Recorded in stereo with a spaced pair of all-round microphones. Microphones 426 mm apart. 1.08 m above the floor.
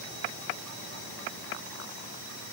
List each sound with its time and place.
Only background noise.